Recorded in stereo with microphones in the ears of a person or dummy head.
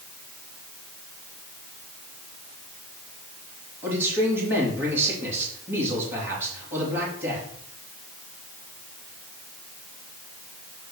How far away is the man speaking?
About 3 m.